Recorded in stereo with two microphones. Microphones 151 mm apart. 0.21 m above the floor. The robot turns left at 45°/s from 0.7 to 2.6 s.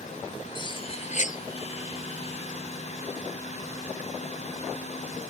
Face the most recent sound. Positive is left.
turn(degrees=60)